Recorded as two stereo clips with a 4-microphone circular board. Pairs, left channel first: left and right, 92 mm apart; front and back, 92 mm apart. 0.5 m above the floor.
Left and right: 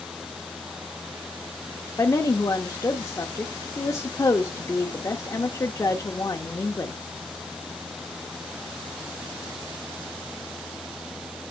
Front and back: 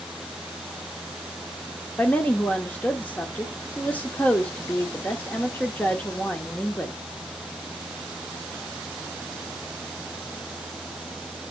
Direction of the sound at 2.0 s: 65° left.